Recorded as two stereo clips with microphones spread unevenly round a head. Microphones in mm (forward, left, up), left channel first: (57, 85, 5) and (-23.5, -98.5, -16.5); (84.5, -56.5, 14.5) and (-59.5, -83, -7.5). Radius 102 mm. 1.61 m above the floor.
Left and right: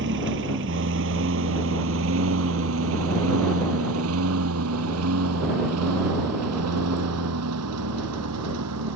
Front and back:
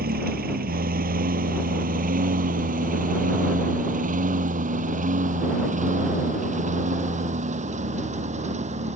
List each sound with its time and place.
0.0 s a lawn mower: 155° right; by 9.0 s 130° right